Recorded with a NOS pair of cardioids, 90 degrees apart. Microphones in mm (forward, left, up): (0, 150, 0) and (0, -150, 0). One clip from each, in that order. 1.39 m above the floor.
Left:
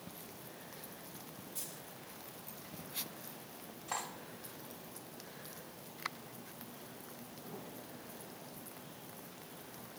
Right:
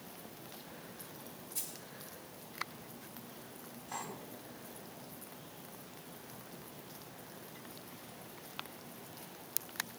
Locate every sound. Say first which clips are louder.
1.6 s a dropped coin: right 3 dB; 30° right, 6 m
3.9 s cutlery clinking: left 3 dB; 65° left, 4 m